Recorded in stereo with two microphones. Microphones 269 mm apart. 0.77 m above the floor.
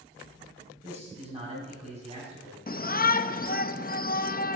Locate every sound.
0.8 s a man speaking: 25° right (ahead or behind), 6 m
2.7 s a shout: 35° left (ahead or behind), 0.5 m